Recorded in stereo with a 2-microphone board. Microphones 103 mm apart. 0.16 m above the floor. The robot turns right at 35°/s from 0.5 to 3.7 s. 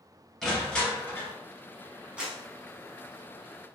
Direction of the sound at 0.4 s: Centre (ahead or behind).